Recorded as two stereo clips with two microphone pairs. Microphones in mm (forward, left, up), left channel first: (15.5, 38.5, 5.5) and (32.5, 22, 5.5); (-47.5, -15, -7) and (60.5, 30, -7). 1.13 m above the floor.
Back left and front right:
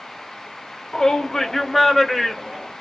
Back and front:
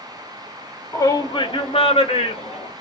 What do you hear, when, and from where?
0.9 s a shout: 160° left, 0.6 m; by 2.7 s 135° right, 1.2 m